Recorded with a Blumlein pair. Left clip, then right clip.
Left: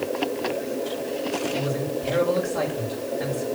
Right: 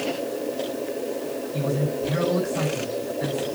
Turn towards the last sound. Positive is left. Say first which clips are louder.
# even
turn(degrees=25)